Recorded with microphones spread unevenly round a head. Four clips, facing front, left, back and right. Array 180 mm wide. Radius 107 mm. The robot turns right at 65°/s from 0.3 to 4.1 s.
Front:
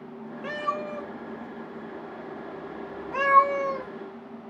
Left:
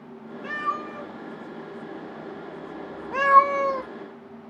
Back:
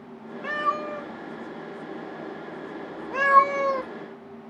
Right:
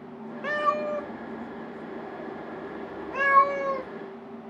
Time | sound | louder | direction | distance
0.4 | a cat meowing | right 4 dB, back 3 dB | 100° right | 0.6 m